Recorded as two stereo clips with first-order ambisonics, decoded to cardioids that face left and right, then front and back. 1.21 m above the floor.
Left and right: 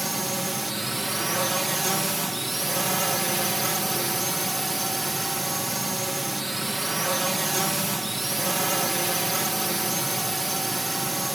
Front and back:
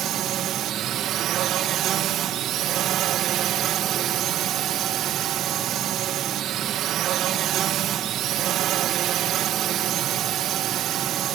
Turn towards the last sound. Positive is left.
turn(degrees=-170)